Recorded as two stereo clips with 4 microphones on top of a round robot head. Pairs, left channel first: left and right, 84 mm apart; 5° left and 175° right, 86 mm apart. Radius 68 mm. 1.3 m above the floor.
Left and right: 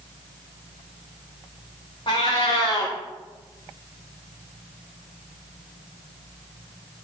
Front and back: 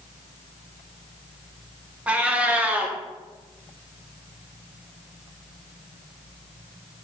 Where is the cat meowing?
115° left, 0.8 m.